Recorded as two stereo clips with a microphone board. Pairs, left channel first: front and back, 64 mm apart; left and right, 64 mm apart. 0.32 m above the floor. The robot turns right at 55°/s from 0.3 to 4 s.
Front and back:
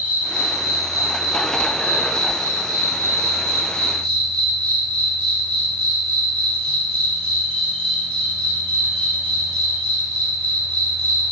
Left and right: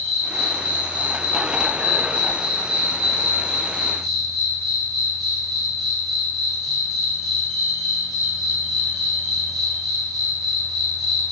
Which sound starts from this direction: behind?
An insect, at 0.0 s.